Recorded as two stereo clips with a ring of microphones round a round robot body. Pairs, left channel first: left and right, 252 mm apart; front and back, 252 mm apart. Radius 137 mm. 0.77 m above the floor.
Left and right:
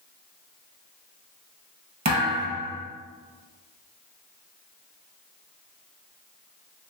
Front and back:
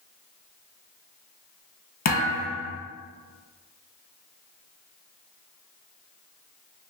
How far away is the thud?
About 1.1 m.